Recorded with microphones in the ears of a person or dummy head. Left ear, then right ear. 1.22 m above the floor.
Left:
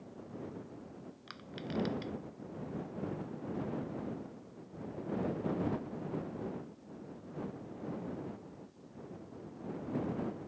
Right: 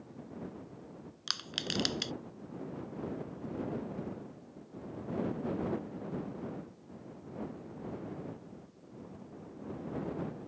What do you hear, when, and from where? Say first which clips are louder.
1.3 s crushing: right 9 dB; 80° right